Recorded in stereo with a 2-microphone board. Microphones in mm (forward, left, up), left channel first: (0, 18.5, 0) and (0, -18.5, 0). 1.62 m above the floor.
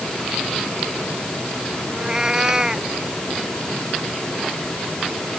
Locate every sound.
1.9 s a cat meowing: 20° right (ahead or behind)